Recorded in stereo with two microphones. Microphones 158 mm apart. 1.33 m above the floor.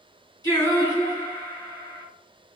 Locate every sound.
0.4 s singing: 20° left (ahead or behind), 1.6 m